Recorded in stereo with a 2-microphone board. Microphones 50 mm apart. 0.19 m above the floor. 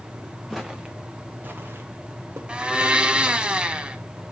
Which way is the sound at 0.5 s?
Centre (ahead or behind).